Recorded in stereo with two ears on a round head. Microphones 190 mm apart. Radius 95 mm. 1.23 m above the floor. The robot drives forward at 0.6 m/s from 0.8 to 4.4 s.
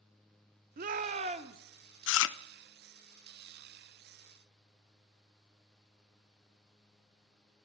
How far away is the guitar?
No guitar in this recording.